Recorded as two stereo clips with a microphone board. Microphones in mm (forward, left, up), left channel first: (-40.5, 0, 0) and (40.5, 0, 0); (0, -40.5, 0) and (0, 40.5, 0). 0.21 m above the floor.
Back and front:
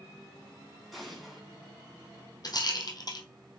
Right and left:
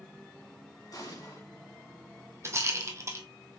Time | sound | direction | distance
0.9 | an explosion | 90° right | 2.5 m
2.4 | a rattle | 140° left | 1.5 m